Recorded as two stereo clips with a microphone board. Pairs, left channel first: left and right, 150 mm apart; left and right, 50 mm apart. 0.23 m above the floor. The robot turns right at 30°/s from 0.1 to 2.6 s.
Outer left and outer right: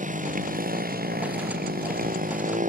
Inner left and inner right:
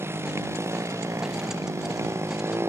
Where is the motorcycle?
60° right (ahead or behind).